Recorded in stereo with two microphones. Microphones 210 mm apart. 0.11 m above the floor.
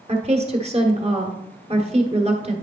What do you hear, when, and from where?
0.1 s a woman speaking: 30° right (ahead or behind), 1.5 m